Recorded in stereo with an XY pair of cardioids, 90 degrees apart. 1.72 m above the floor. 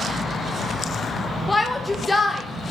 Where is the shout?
15° left, 1.1 m.